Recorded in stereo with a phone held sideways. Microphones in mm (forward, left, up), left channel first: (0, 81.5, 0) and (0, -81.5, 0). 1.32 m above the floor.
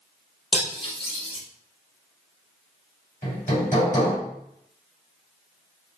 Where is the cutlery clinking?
35° left (ahead or behind), 0.8 m.